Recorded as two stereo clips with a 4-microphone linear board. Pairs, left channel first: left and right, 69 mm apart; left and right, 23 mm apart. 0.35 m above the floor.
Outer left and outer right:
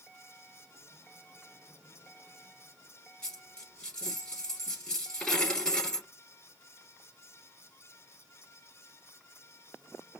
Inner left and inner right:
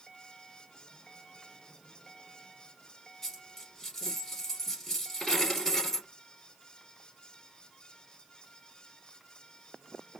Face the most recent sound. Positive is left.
turn(degrees=10)  # may be behind; listen again after turning